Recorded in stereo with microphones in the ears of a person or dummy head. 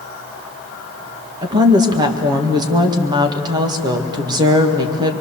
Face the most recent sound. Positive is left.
turn(degrees=-25)  # may be behind; listen again after turning